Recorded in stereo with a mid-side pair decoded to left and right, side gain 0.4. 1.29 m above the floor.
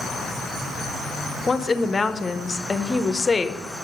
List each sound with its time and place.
1.5 s a woman speaking: 30° left, 0.7 m